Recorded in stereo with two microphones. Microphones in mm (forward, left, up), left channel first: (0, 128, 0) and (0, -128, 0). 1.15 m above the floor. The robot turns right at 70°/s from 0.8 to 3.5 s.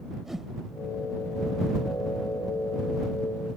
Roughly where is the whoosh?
Centre.